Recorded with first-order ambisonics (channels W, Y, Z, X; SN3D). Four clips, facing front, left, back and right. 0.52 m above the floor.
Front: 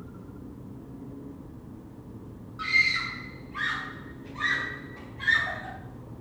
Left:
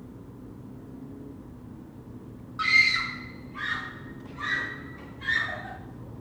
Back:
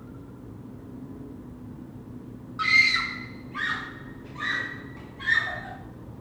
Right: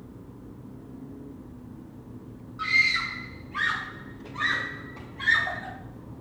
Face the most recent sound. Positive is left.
turn(degrees=-85)